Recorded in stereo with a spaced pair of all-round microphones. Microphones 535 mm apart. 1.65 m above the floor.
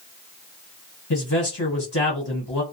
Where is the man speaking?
45° left (ahead or behind), 1.3 m.